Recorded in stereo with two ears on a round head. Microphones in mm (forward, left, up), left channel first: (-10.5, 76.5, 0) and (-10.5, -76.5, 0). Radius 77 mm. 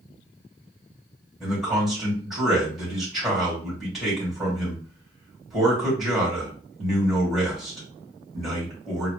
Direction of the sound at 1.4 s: Centre (ahead or behind).